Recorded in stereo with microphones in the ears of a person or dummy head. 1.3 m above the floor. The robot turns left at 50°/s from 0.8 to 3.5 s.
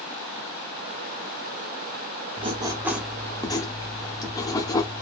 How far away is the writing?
About 0.6 m.